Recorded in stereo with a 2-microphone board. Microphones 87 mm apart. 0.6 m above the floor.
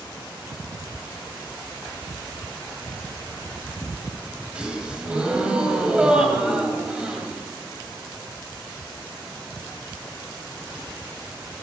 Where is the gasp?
10° right (ahead or behind), 2.5 m.